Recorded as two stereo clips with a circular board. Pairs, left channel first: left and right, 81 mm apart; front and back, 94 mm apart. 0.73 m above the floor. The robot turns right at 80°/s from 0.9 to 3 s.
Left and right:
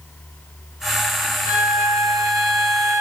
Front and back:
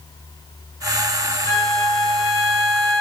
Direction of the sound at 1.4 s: 130° left.